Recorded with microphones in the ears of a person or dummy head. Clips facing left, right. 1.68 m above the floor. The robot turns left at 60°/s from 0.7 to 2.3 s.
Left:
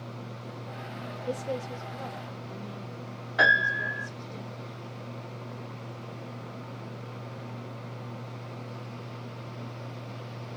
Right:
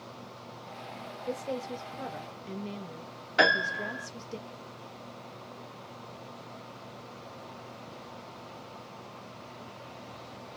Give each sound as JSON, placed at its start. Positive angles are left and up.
{"t": 1.3, "sound": "a woman speaking", "azimuth_deg": 15, "distance_m": 0.7}
{"t": 3.4, "sound": "a piano", "side_deg": -40, "distance_m": 1.9}